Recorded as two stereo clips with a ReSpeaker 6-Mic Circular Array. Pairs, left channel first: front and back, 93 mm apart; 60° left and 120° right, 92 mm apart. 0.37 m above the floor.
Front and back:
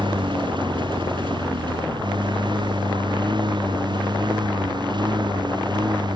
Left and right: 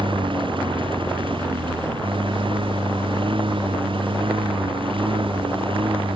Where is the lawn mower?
145° right; by 6.2 s 140° right.